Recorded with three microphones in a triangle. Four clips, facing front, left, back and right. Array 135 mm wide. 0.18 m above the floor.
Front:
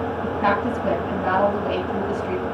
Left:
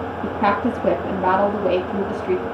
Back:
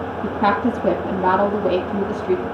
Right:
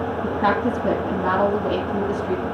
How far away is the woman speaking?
About 4 m.